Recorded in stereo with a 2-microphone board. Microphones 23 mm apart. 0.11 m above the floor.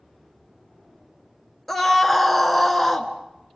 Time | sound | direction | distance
1.7 | a scream | 5° left (ahead or behind) | 1.8 m